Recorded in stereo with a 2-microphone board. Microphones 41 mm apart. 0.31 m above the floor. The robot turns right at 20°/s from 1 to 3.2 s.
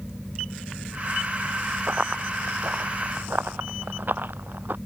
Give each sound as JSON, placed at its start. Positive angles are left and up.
{"t": 1.9, "sound": "running footsteps", "side_deg": -35}